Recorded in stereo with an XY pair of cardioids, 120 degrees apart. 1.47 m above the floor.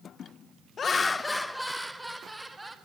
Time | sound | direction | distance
0.8 | laughter | 45° left | 0.9 m